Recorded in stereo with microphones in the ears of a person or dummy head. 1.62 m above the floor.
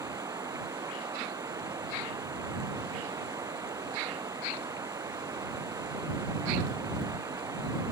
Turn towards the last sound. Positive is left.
turn(degrees=-25)  # may be behind; listen again after turning